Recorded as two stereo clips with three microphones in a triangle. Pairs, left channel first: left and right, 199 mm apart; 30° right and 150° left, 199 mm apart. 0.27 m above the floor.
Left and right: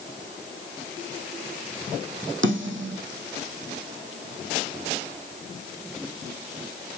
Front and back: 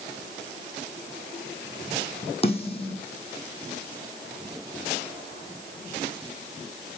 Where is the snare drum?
90° right, 4 m.